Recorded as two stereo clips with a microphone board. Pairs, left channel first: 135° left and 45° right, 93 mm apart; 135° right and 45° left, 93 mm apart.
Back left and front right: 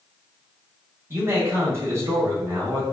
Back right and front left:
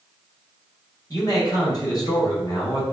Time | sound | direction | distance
1.1 | a man speaking | 100° right | 1.7 m